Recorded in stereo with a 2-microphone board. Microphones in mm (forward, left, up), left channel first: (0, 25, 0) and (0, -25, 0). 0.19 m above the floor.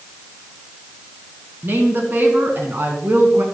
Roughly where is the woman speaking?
Right.